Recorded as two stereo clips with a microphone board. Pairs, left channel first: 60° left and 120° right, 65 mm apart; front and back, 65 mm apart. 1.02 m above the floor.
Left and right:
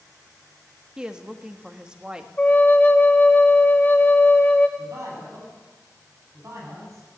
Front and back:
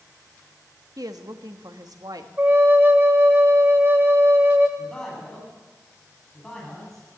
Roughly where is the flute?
Behind left.